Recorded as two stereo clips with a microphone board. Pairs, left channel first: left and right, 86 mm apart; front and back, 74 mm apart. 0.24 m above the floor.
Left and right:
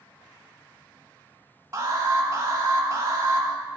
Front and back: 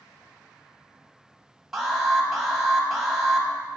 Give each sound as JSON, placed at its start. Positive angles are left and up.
{"t": 1.7, "sound": "an alarm", "azimuth_deg": -95, "distance_m": 1.0}